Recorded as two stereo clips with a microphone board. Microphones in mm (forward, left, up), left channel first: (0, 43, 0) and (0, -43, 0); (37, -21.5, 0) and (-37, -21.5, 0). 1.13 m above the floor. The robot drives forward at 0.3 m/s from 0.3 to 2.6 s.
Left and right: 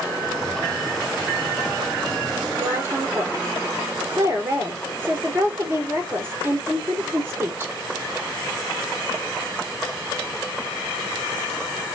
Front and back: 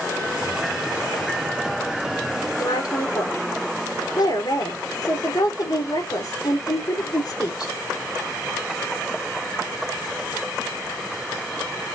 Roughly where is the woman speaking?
Ahead right.